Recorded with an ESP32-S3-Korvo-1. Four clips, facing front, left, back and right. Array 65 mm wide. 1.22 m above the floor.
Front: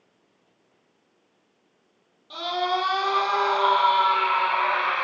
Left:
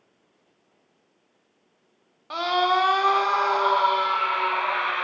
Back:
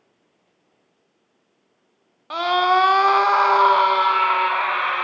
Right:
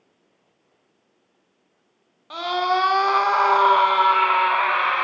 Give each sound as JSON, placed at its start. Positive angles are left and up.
{"t": 2.3, "sound": "a scream", "azimuth_deg": 170, "distance_m": 1.3}